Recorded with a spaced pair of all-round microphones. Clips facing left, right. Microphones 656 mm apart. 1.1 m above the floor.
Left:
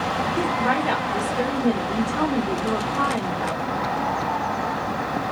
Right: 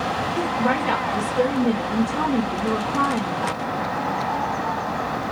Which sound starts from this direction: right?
A woman speaking, at 0.4 s.